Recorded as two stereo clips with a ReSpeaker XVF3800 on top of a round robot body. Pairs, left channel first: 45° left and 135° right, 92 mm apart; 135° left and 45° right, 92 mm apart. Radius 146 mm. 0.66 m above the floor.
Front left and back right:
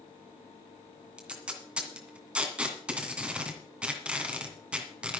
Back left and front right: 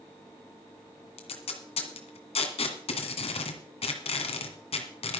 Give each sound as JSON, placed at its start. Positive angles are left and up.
{"t": 1.2, "sound": "tape being pulled", "azimuth_deg": 145, "distance_m": 2.0}